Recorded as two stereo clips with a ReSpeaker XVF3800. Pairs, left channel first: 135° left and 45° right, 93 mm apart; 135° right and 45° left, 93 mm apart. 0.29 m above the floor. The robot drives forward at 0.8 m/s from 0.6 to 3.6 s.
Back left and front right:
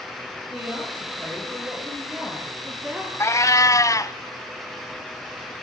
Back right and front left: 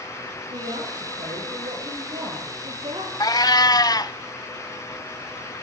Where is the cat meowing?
170° right, 0.6 m; by 4.2 s 175° right, 0.9 m.